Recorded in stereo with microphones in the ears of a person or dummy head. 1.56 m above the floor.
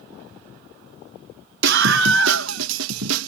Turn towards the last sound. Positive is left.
turn(degrees=-80)